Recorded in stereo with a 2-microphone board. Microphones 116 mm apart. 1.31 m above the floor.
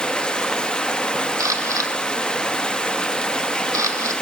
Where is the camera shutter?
30° right (ahead or behind), 2 m.